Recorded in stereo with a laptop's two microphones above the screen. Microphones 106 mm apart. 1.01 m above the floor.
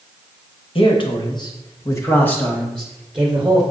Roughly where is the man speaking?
Left.